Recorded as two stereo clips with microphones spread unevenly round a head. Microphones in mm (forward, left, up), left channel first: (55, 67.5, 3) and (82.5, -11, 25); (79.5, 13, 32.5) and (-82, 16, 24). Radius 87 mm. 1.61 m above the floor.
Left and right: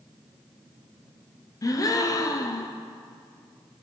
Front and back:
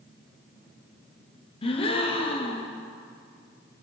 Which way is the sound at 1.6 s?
55° left.